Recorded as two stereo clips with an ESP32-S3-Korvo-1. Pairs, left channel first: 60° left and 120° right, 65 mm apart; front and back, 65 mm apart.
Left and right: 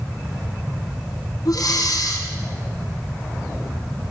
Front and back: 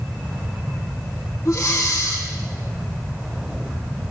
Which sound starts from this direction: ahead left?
Breathing, at 1.4 s.